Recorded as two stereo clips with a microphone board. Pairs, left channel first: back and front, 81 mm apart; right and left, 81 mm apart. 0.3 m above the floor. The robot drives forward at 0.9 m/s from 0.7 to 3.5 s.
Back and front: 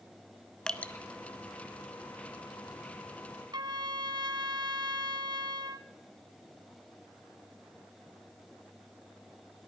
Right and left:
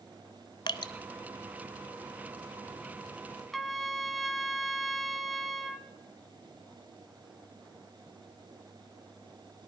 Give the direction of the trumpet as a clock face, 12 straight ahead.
12 o'clock.